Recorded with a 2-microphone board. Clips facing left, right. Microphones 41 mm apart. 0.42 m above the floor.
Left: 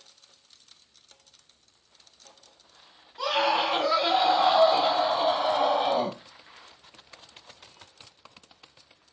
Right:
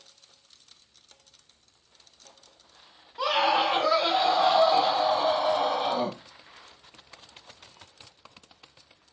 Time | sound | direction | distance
3.2 | a scream | 15° right (ahead or behind) | 1.2 m